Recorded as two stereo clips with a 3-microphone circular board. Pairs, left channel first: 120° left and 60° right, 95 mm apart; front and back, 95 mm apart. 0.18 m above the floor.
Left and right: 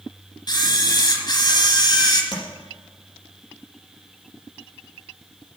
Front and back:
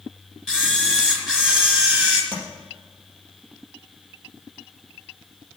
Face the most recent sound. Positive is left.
turn(degrees=140)